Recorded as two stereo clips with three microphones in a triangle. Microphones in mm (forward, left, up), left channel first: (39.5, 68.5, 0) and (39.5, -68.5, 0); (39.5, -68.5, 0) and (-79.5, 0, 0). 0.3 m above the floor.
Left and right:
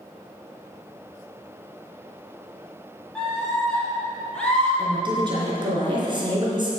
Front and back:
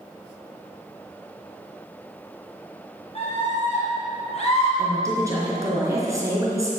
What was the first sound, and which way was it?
A scream, 5° left.